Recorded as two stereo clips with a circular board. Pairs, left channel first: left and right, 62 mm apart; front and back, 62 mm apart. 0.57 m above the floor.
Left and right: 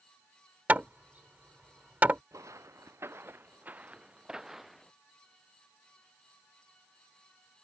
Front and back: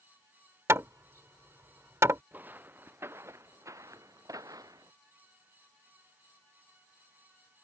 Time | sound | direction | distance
0.7 | hammering | 150° right | ?
2.3 | footsteps | 120° right | ?